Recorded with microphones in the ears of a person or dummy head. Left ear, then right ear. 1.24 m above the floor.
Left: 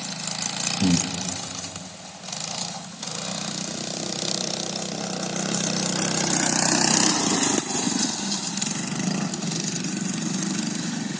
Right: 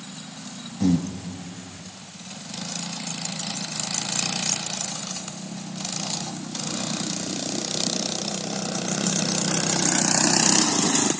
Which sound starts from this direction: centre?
Breathing, at 0.8 s.